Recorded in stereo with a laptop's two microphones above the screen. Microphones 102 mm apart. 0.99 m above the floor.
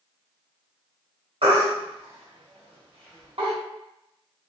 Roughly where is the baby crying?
Right.